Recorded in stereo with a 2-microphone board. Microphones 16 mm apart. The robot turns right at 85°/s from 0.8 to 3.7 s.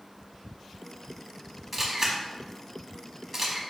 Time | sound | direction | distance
1.7 | a camera shutter | 10° right (ahead or behind) | 0.8 m